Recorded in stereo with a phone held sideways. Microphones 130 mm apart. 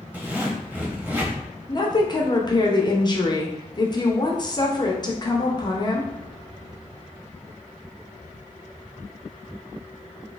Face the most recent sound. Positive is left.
turn(degrees=30)  # may be behind; listen again after turning